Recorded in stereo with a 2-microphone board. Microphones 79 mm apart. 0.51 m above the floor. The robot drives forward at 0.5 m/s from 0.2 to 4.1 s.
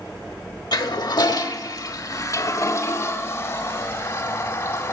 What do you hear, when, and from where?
0.7 s a toilet flushing: 60° left (ahead or behind), 1.0 m; by 4.9 s 25° left (ahead or behind), 1.9 m